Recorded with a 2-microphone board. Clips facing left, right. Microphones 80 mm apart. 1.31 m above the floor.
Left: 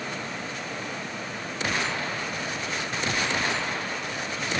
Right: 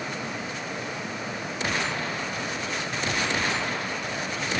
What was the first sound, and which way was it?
Only background noise.